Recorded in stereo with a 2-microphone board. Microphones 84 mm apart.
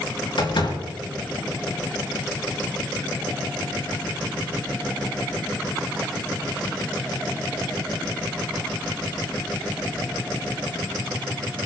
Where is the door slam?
70° left (ahead or behind), 3.5 m.